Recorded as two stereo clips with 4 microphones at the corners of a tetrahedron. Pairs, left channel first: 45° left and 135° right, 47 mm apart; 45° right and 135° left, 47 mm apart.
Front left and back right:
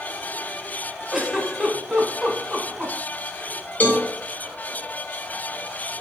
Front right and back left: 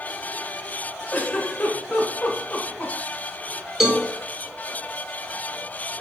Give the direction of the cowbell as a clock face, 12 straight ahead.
10 o'clock.